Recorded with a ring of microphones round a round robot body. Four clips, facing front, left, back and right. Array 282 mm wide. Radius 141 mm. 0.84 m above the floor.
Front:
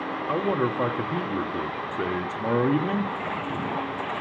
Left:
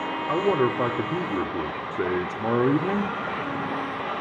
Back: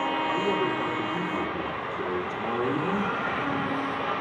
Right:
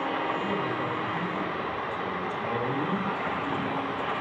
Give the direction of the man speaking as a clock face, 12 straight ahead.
10 o'clock.